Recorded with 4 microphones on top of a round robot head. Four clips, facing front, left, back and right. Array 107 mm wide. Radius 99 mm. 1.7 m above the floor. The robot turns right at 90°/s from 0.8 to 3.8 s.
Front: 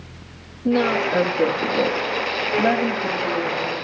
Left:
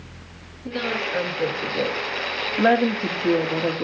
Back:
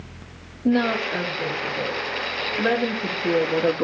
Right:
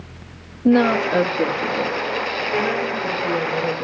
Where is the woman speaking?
105° right, 3 m; by 3.9 s 165° left, 3 m.